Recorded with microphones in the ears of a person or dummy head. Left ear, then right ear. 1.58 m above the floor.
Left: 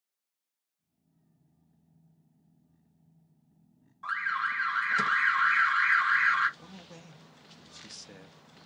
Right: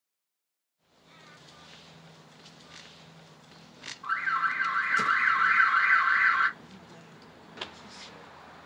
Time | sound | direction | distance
4.0 | an alarm | 65° left (ahead or behind) | 1.3 m
6.6 | a man speaking | 70° left (ahead or behind) | 0.7 m